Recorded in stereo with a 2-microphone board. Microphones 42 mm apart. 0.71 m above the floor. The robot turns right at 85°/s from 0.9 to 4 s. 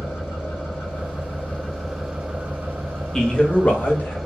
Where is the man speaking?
15° left, 0.8 m; by 4.2 s 90° left, 0.8 m.